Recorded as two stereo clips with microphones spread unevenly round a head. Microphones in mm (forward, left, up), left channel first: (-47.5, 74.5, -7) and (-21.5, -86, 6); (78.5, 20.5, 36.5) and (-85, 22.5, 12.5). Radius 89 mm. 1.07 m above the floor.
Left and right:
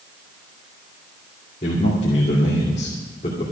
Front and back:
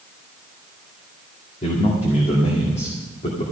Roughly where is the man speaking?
Ahead left.